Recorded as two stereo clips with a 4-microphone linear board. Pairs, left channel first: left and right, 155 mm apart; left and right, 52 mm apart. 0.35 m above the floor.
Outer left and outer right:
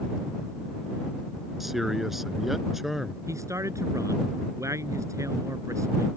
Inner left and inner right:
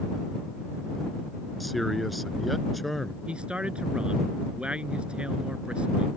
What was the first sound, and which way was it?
A man speaking, centre (ahead or behind).